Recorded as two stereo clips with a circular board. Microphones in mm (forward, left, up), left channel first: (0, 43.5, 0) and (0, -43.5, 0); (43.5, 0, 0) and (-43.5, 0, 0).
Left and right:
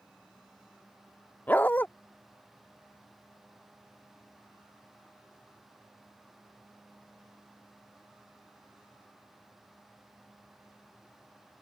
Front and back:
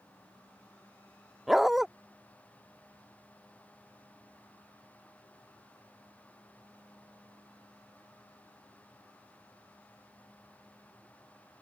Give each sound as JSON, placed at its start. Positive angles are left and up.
{"t": 1.5, "sound": "a dog barking", "azimuth_deg": 100}